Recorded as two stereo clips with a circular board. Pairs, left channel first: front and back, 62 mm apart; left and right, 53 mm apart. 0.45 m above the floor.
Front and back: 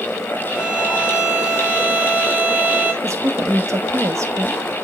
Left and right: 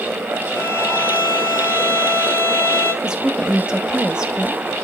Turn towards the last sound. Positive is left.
turn(degrees=-165)